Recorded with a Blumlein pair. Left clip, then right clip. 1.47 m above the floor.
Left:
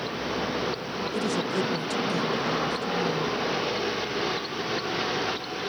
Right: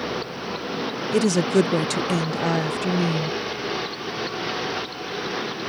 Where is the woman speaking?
60° right.